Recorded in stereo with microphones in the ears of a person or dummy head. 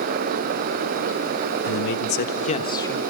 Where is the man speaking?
75° left (ahead or behind), 1.4 m; by 3.0 s 10° left (ahead or behind), 1.0 m.